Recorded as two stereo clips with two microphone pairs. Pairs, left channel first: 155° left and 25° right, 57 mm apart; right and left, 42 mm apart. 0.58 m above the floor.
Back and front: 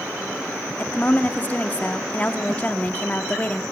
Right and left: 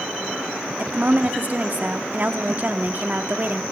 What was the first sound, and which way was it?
A woman speaking, 110° left.